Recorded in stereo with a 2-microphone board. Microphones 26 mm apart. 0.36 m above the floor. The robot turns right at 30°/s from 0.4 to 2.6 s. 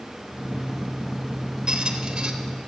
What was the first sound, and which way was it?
A squeak, 35° right (ahead or behind).